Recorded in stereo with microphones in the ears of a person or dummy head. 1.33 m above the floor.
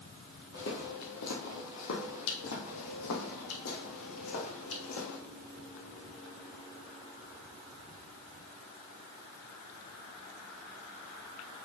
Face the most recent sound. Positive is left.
turn(degrees=70)  # may be behind; listen again after turning